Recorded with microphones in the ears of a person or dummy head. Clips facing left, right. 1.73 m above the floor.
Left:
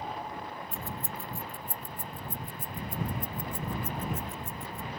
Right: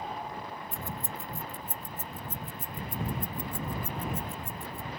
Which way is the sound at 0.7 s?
15° right (ahead or behind).